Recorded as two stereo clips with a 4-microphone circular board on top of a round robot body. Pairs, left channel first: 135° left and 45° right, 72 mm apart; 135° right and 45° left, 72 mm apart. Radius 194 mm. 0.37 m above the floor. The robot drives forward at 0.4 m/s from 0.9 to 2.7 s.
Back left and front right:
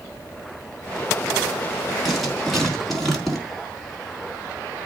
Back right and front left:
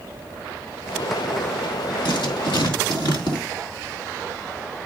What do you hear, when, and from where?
2.0 s writing: 135° right, 4 m